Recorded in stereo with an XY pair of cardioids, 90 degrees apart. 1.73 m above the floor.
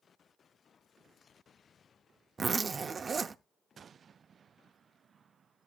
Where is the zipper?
40° right, 0.9 m.